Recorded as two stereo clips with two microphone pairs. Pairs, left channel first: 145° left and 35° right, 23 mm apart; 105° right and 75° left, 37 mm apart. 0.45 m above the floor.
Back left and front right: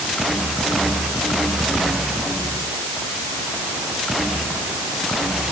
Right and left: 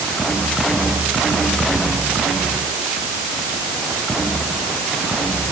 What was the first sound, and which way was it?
Only background noise.